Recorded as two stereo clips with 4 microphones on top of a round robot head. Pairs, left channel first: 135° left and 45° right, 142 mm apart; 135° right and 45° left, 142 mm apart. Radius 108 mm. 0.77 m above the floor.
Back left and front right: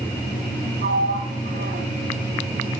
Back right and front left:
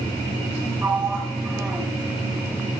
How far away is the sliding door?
About 2 m.